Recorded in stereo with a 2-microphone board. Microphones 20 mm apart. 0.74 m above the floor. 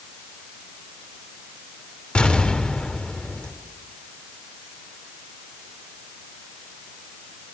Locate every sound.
2.1 s an explosion: 65° left (ahead or behind), 3 m